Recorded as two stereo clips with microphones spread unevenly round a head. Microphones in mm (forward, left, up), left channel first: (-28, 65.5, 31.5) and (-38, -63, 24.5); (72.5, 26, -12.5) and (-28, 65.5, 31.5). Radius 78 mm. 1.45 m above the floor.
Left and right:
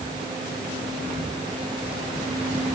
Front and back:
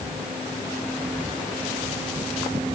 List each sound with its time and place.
Only background noise.